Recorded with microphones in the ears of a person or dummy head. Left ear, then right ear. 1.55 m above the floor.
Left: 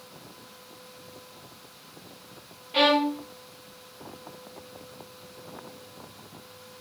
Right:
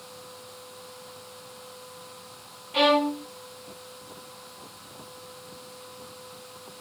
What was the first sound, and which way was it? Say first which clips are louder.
A violin: even; centre (ahead or behind).